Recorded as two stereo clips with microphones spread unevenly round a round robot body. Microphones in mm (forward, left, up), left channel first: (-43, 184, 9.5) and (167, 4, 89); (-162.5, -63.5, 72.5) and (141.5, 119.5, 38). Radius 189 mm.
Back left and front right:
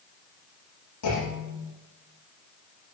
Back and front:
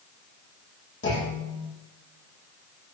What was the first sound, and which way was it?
A clunk, 150° left.